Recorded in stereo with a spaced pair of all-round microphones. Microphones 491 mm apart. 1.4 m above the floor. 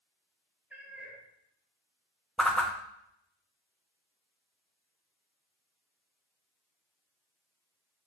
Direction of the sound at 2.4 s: Centre (ahead or behind).